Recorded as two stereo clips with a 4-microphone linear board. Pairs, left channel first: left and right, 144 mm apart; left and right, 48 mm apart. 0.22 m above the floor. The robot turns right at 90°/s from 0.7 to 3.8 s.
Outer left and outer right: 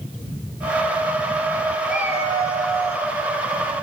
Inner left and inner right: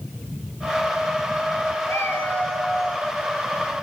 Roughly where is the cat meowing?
Left.